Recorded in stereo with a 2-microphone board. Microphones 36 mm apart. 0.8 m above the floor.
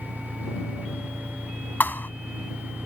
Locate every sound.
0.0 s an engine running: 35° right (ahead or behind)
1.8 s a thud: 70° left (ahead or behind)